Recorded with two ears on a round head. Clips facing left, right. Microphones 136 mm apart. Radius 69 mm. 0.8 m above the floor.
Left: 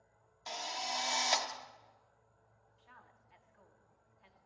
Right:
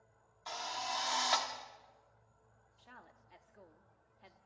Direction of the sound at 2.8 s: 50° right (ahead or behind).